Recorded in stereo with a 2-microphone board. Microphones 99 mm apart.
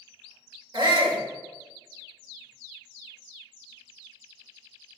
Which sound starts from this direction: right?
A shout, at 0.7 s.